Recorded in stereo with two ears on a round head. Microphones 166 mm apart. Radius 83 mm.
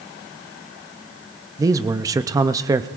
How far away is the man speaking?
About 0.5 m.